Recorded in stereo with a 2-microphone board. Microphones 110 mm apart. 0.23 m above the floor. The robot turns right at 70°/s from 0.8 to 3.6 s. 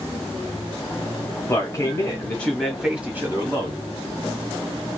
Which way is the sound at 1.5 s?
95° left.